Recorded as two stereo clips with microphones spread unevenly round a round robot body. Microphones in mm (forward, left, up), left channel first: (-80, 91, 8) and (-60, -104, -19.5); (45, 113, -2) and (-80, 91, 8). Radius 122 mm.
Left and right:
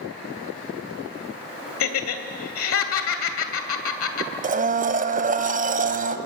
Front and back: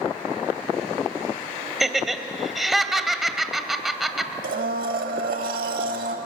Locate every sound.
1.8 s laughter: 100° left, 2.5 m
4.4 s a blender: 135° right, 1.3 m